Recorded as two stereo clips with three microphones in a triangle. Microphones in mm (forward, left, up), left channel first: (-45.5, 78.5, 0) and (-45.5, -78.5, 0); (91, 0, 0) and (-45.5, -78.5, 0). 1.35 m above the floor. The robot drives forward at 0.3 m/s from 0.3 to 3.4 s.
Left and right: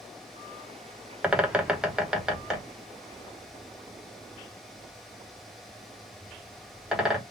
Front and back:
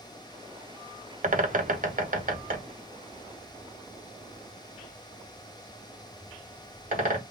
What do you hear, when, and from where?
1.2 s a bird: 170° right, 0.6 m; by 7.2 s 175° right, 1.2 m